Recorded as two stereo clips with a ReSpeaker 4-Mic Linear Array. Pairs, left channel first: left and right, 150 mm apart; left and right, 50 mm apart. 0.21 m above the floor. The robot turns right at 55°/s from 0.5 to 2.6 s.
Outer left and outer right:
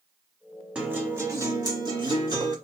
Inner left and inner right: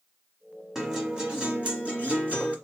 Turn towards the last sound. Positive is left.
turn(degrees=-60)